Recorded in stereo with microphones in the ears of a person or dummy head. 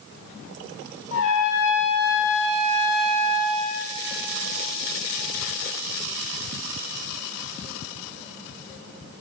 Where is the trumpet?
70° left (ahead or behind), 5 m.